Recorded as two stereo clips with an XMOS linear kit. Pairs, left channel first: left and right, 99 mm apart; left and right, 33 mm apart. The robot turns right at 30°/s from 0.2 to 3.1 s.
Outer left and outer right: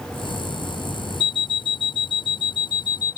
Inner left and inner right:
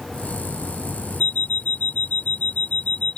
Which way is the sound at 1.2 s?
75° left.